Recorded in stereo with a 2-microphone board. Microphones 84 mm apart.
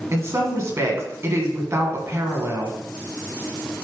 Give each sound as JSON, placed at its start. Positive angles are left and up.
{"t": 0.1, "sound": "a woman speaking", "side_deg": -35, "distance_m": 2.5}